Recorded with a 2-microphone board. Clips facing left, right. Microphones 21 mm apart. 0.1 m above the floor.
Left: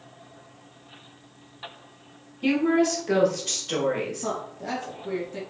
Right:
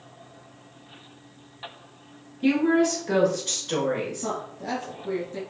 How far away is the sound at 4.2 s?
About 1.7 m.